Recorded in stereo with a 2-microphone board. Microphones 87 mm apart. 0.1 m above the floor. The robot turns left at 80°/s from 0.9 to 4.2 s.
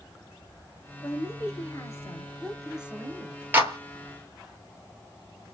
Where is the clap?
25° right (ahead or behind), 2 m; by 3.8 s 40° right (ahead or behind), 2 m.